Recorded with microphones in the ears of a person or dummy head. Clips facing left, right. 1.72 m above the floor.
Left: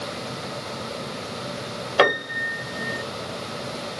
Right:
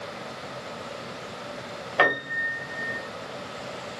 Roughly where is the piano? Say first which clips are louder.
Left 5 dB; left.